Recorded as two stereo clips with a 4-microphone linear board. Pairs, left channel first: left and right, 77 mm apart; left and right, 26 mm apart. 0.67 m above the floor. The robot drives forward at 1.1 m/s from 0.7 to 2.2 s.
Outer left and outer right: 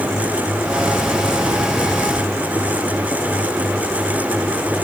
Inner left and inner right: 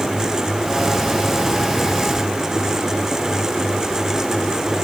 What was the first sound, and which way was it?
Only background noise.